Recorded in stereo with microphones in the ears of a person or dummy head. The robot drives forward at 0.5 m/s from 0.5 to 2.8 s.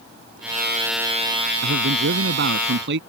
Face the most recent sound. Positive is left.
turn(degrees=-65)  # may be behind; listen again after turning